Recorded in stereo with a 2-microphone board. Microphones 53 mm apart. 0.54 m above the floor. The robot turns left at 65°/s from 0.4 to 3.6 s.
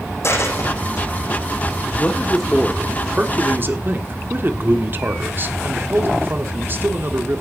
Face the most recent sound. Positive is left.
turn(degrees=-70)